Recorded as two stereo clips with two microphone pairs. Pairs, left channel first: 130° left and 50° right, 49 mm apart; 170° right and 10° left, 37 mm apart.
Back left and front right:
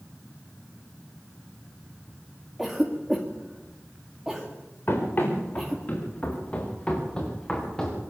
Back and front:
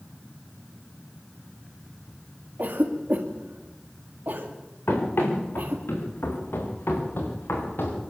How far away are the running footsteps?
About 7 m.